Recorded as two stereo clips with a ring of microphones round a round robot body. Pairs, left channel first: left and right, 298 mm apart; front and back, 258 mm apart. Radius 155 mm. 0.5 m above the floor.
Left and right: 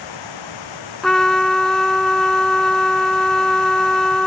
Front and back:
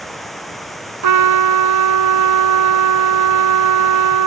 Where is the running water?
90° left.